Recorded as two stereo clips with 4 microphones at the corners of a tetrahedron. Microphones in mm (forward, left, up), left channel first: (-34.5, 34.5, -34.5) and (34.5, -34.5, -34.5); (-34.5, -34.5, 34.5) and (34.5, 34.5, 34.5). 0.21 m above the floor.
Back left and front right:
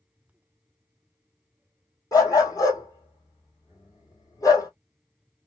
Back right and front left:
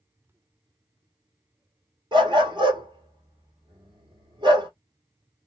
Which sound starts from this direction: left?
A dog barking, at 2.1 s.